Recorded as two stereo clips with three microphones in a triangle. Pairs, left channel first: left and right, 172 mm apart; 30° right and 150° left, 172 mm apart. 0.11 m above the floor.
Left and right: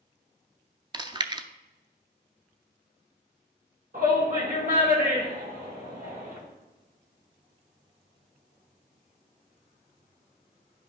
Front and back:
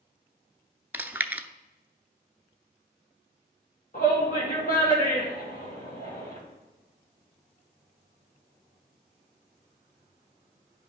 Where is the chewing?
135° right, 0.5 m.